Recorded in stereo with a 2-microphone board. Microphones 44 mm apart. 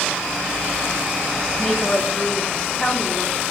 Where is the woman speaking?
10° left (ahead or behind), 3 m.